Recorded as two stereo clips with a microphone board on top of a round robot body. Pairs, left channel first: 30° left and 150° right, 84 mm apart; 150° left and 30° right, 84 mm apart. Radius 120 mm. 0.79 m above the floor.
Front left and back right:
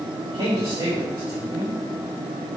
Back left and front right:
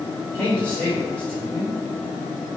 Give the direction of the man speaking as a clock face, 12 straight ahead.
4 o'clock.